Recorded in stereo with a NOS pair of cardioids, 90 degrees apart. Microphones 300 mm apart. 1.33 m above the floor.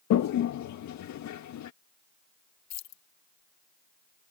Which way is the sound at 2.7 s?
65° left.